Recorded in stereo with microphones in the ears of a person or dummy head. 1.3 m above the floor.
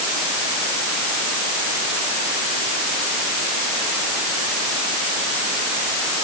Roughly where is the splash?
I don't hear a splash.